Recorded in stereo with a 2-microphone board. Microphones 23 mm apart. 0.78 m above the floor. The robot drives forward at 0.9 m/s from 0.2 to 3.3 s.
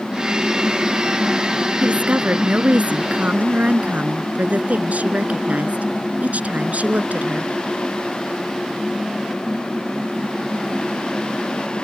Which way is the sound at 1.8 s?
80° right.